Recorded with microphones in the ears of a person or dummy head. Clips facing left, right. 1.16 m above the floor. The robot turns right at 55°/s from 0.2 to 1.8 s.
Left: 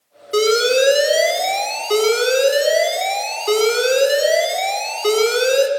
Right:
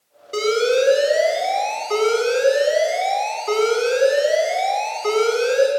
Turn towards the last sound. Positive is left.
turn(degrees=95)